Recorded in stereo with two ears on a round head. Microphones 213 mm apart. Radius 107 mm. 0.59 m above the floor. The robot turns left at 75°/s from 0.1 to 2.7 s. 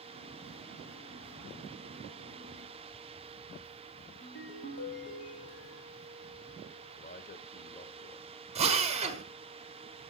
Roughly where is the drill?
Right.